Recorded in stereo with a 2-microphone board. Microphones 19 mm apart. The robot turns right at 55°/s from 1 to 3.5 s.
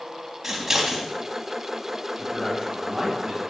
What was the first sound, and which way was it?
Scissors, 15° right (ahead or behind).